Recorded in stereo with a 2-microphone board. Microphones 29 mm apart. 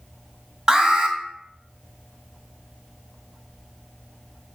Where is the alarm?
20° right (ahead or behind), 1.5 m.